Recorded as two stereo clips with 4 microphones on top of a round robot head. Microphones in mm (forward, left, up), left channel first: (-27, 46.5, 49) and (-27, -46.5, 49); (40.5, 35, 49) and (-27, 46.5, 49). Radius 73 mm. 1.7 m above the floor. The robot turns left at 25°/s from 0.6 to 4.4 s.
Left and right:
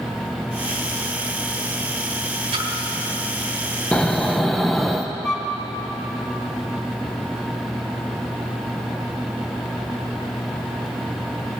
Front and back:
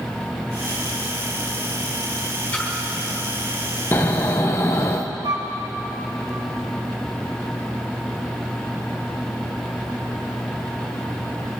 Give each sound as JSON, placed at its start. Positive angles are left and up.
{"t": 2.5, "sound": "a splash", "azimuth_deg": -80, "distance_m": 4.0}
{"t": 3.9, "sound": "snoring", "azimuth_deg": 20, "distance_m": 0.6}
{"t": 5.2, "sound": "a flute", "azimuth_deg": 170, "distance_m": 2.0}